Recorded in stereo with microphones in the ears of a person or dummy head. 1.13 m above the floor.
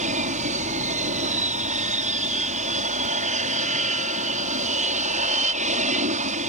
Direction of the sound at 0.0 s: 35° right (ahead or behind).